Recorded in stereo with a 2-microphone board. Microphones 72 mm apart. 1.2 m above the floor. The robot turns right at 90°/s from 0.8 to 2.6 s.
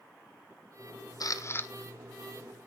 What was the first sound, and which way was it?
A camera shutter, 110° left.